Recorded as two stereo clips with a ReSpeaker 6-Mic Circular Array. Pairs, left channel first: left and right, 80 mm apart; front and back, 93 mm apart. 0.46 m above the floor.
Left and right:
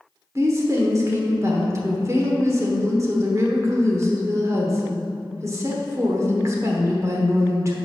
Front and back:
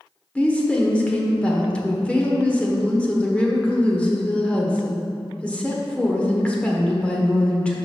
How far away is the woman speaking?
About 1.2 m.